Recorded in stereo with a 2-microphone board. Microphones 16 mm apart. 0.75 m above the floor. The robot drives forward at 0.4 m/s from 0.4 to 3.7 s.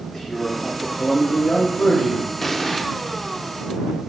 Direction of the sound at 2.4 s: 20° left (ahead or behind).